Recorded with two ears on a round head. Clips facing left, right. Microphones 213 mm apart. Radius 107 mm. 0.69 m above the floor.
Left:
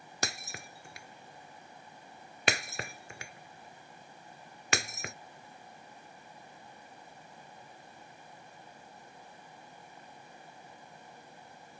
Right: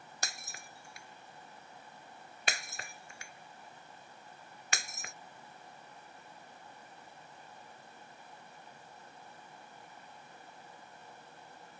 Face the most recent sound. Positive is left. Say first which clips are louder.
# left 8 dB
turn(degrees=55)  # may be behind; listen again after turning